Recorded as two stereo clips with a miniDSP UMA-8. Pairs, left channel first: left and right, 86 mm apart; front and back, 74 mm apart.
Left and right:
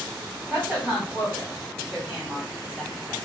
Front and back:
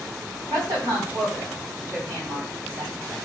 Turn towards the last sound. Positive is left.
turn(degrees=-175)